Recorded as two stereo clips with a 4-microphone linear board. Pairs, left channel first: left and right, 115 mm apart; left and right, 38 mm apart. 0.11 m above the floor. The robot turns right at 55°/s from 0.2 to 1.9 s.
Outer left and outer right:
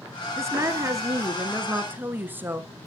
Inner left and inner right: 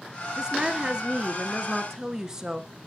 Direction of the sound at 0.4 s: 25° right (ahead or behind).